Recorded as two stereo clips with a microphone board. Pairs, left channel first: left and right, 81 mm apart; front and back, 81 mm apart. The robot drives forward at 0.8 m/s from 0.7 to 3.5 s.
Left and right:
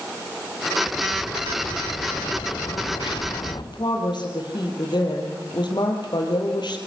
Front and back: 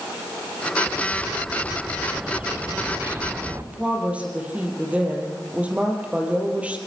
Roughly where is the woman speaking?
Left.